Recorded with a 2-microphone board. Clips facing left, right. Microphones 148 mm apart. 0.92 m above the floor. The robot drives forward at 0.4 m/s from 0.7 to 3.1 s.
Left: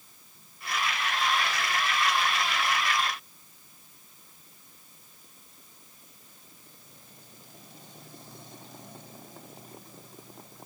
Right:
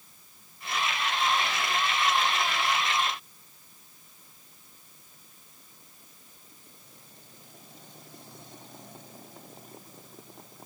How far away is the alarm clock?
I don't hear an alarm clock.